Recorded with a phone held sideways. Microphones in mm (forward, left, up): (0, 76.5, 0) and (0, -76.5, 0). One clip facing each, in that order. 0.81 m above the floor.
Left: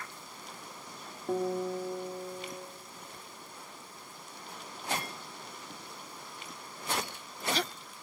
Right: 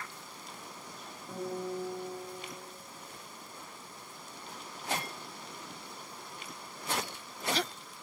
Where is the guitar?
65° left (ahead or behind), 1.7 m.